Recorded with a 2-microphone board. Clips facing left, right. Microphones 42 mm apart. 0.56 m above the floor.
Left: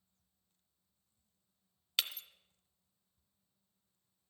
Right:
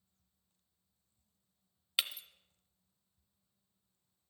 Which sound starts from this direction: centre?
Breaking glass, at 2.0 s.